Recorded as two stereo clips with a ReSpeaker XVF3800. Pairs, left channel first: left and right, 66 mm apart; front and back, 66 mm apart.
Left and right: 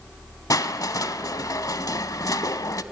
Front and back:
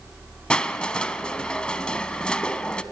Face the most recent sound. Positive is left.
turn(degrees=75)